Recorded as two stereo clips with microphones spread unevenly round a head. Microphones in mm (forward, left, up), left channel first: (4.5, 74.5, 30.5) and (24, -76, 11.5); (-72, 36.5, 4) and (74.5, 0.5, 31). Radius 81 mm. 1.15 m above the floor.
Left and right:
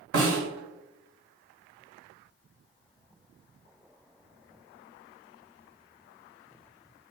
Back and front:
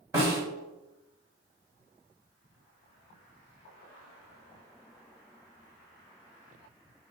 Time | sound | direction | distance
0.1 | a snare drum | 80° right | 2 m